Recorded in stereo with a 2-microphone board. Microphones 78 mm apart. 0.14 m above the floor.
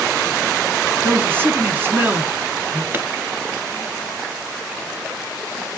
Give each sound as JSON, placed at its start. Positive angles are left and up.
{"t": 1.0, "sound": "a man speaking", "side_deg": -25, "distance_m": 1.3}
{"t": 2.9, "sound": "a pop", "side_deg": -30, "distance_m": 1.1}